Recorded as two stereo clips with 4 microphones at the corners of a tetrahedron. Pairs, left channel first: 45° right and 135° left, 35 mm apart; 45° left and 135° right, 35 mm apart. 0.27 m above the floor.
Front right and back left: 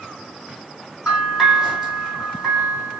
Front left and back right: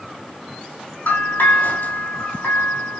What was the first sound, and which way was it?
A bell, 55° left.